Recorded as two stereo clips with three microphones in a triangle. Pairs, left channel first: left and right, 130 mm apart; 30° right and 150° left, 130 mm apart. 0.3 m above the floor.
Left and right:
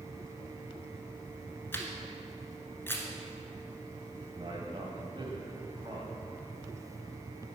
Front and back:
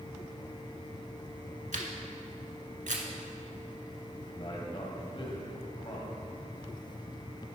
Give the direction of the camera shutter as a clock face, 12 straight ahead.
7 o'clock.